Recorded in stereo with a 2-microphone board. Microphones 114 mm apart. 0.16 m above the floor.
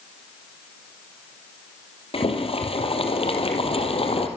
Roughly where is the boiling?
Left.